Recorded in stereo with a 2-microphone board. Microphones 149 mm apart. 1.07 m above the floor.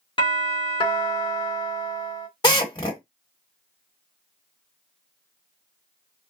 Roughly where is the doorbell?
Left.